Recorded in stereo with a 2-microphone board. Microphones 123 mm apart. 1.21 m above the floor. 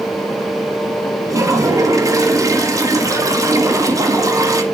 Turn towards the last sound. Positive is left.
turn(degrees=-25)  # may be behind; listen again after turning